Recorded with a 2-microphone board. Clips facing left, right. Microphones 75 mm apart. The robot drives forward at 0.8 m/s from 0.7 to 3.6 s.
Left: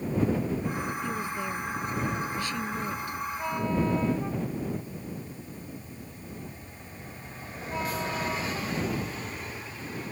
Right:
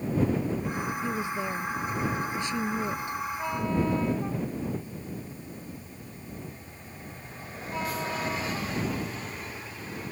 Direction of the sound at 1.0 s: 15° right (ahead or behind).